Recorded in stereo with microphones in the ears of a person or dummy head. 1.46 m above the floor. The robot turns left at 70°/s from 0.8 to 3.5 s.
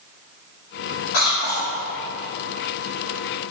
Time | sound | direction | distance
1.1 | a cough | 75° left | 1.0 m